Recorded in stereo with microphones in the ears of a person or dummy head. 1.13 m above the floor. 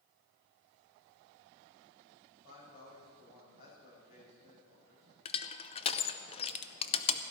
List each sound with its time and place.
2.4 s a man speaking: 50° left (ahead or behind), 5 m
5.2 s crushing: 25° left (ahead or behind), 0.5 m